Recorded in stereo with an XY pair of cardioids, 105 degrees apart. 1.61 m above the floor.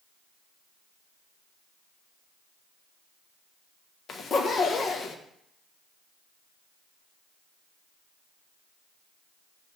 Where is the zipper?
50° left, 1.6 m.